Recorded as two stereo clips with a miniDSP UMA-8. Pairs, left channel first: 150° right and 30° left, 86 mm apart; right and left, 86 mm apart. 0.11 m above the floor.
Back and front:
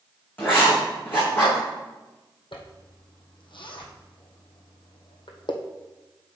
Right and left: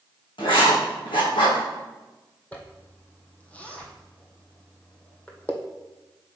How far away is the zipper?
About 1.2 m.